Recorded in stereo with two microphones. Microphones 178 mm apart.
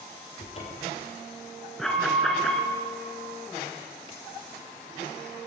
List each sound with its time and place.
0.4 s a cupboard door: 35° left (ahead or behind), 2 m
1.8 s an alarm: 5° left (ahead or behind), 1.1 m